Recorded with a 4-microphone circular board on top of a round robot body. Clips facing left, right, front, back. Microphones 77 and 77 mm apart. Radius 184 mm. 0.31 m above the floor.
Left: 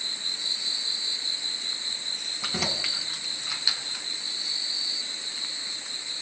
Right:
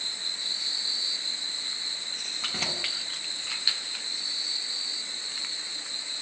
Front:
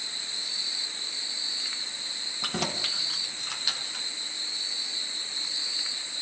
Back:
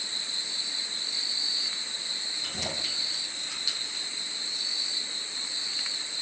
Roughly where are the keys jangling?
Ahead.